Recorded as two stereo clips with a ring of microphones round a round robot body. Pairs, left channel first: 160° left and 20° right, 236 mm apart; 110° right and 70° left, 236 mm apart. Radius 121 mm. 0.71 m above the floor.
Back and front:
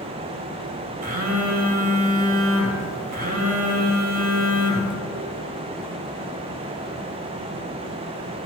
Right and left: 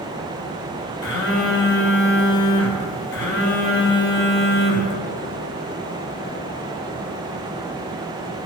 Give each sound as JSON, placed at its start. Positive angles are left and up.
{"t": 1.0, "sound": "a phone buzzing", "azimuth_deg": -75, "distance_m": 1.9}